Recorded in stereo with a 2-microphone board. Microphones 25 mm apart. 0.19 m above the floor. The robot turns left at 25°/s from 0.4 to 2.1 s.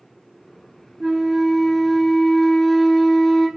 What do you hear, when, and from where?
1.0 s a flute: 20° right (ahead or behind), 0.9 m; by 3.5 s 5° left (ahead or behind), 0.9 m